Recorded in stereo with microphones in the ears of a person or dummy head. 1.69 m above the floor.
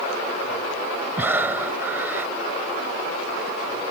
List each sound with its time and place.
1.2 s breathing: 10° right (ahead or behind)